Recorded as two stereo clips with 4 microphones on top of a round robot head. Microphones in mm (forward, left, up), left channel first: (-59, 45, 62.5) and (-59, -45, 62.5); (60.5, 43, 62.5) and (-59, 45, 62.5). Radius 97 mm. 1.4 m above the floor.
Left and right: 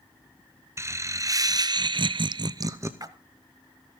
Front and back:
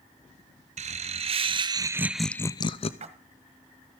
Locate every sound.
0.8 s laughter: 150° right, 1.2 m; by 2.9 s 30° right, 0.6 m
3.0 s a splash: 135° right, 1.4 m